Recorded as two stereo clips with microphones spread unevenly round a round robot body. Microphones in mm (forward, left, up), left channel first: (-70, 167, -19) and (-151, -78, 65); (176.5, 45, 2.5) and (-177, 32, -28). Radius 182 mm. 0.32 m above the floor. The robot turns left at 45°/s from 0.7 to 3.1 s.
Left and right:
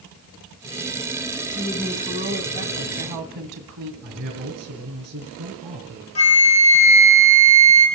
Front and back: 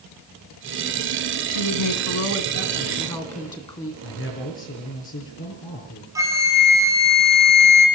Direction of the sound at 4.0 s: 60° right.